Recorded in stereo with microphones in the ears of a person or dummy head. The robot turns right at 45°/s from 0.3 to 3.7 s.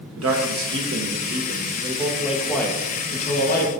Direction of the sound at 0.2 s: 95° right.